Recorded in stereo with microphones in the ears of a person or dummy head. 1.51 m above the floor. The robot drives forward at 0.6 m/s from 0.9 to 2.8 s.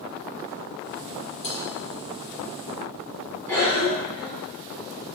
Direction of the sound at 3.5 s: 10° left (ahead or behind).